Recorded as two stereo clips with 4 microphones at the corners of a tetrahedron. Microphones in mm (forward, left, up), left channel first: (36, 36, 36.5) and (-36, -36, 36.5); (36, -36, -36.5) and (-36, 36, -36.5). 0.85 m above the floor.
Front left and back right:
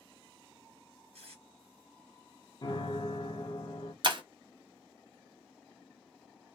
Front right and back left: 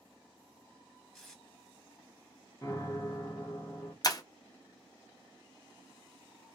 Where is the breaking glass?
95° right, 0.5 m.